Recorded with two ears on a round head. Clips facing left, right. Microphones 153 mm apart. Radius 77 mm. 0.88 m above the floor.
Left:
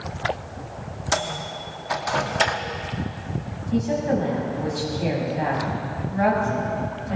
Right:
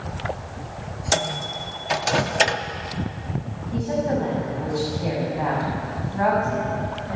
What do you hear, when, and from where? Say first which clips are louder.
1.1 s a microwave: right 2 dB; 30° right (ahead or behind), 0.9 m
3.7 s a woman speaking: left 1 dB; 25° left (ahead or behind), 7 m